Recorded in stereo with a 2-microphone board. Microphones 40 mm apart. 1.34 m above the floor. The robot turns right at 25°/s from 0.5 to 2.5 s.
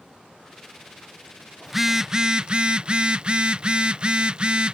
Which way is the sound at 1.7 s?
5° right (ahead or behind).